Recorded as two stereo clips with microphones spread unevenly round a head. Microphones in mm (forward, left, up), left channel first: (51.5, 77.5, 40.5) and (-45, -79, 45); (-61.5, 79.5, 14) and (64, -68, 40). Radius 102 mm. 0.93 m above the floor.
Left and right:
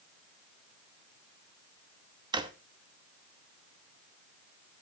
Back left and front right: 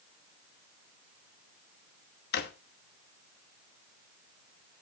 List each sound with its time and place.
2.3 s a drawer: 170° left, 0.9 m